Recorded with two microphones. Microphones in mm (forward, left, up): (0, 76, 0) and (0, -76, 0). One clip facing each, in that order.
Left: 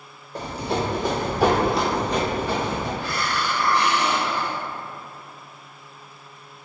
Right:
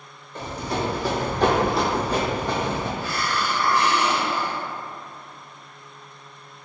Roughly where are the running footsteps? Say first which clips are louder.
Left 2 dB; left.